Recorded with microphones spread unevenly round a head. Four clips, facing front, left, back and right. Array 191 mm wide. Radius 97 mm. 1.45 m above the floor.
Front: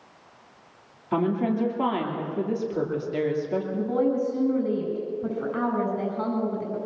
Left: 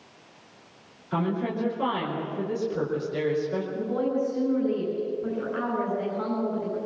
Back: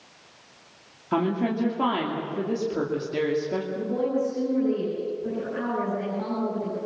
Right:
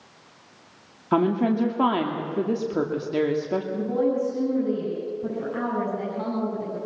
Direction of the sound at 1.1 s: 95° right.